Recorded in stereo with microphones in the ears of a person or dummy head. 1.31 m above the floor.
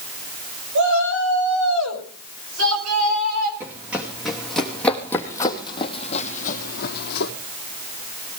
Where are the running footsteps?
10° right (ahead or behind), 3.5 m; by 7.3 s 55° left (ahead or behind), 2.5 m.